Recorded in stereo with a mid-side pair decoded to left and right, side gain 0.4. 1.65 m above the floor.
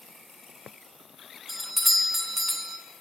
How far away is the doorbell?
About 0.6 m.